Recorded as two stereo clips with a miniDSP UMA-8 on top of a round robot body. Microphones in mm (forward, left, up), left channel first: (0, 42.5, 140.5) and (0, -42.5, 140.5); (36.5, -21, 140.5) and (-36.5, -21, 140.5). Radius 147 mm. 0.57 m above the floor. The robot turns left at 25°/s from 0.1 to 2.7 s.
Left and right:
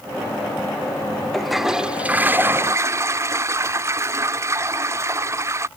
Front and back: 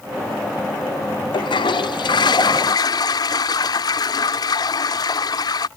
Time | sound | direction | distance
1.3 | a toilet flushing | 5° left | ?